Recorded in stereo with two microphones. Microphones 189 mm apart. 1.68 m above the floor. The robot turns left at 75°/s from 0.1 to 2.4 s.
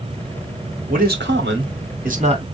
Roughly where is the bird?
I don't hear a bird.